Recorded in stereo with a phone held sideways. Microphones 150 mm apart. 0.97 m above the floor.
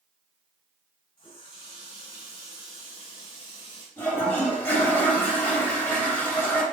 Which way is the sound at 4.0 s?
15° left (ahead or behind).